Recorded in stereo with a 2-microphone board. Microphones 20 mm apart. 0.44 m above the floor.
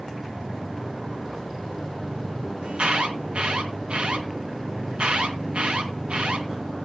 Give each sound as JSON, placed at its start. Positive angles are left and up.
{"t": 2.6, "sound": "an alarm", "side_deg": -65, "distance_m": 2.5}